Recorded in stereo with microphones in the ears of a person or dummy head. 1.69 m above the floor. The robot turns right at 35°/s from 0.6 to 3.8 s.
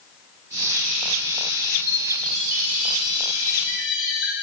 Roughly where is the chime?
Right.